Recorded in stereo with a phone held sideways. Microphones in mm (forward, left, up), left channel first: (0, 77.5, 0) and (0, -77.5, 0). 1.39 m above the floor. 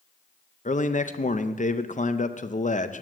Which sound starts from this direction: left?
A man speaking, at 0.7 s.